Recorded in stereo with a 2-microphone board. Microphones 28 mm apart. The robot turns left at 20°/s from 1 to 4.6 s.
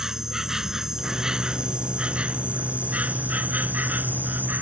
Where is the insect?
15° right; by 4.6 s 90° right.